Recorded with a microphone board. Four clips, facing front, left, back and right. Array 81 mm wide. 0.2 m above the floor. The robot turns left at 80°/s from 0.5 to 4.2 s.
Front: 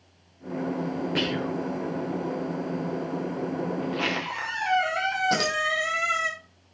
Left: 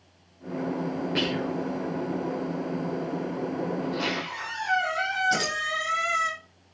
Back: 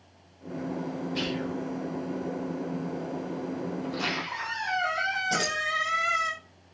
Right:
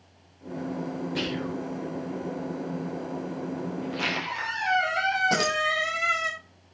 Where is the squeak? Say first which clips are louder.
Left 1 dB, front 3 dB; 5° left, 3.5 m; by 6.3 s 30° right, 3.5 m.